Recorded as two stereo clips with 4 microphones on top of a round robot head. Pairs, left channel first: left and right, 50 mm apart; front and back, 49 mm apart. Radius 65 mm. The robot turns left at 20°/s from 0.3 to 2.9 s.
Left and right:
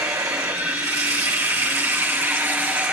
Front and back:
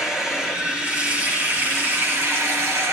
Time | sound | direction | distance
0.0 | running water | 100° right | 4 m